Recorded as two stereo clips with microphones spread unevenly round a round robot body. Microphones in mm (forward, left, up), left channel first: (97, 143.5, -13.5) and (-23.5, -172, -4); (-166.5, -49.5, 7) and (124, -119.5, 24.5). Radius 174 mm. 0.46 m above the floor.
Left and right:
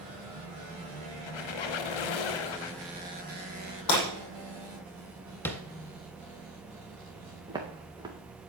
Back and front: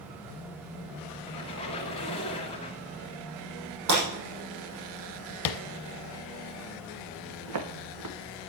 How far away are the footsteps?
About 2.5 m.